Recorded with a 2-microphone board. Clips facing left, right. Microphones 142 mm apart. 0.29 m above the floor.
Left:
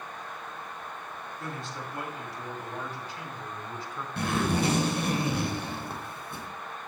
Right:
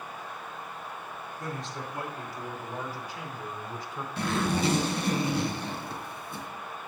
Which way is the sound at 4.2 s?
65° left (ahead or behind).